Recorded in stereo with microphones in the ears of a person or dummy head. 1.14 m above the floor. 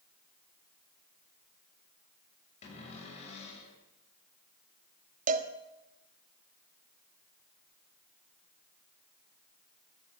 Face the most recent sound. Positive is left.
turn(degrees=-50)  # may be behind; listen again after turning